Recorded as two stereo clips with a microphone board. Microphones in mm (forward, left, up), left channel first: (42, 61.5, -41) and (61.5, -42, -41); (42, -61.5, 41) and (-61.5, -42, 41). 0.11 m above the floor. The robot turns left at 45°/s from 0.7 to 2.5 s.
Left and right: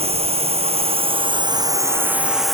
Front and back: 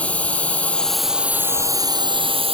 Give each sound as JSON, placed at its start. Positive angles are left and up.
{"t": 0.0, "sound": "a drone", "azimuth_deg": -90}